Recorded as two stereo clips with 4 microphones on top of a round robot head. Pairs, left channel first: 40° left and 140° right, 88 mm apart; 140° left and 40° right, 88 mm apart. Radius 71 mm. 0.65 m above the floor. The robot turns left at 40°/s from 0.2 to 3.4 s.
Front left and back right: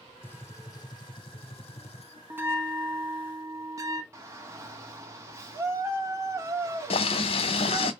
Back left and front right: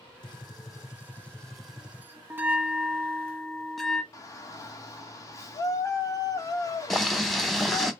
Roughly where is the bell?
Right.